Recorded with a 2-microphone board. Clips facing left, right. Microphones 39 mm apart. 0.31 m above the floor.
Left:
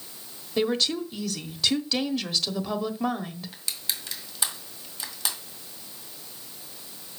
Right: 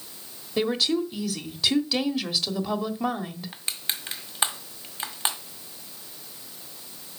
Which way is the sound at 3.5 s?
35° right (ahead or behind).